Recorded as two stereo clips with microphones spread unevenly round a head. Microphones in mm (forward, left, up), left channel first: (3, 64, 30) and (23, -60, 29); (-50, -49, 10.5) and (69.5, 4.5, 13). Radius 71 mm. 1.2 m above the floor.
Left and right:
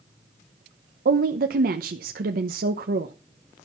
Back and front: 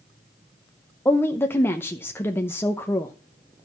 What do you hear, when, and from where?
1.1 s a woman speaking: 80° right, 0.9 m